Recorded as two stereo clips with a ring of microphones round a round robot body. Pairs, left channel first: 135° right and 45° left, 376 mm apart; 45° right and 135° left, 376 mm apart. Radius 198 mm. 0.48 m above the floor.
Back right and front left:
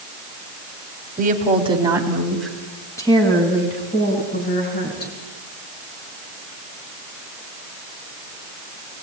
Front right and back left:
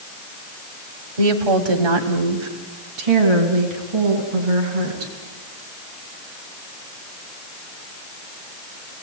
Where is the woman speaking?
115° left, 3.5 m; by 5.1 s 160° left, 6.5 m.